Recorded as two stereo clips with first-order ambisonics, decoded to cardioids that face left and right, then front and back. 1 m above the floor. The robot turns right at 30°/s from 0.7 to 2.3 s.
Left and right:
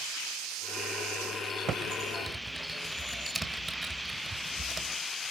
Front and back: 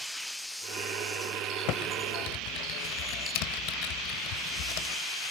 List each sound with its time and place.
1.7 s typing on a keyboard: 30° right, 1.5 m; by 5.0 s 10° right, 1.5 m